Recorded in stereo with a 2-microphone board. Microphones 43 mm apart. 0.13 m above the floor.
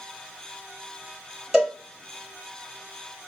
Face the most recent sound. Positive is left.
turn(degrees=-15)  # may be behind; listen again after turning